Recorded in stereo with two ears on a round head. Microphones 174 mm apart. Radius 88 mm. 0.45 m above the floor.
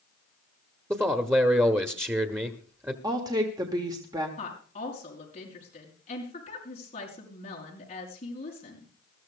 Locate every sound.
0.9 s a man speaking: 10° right (ahead or behind), 1.0 m
3.0 s a woman speaking: 20° right (ahead or behind), 1.4 m
4.4 s a woman speaking: 30° left (ahead or behind), 5 m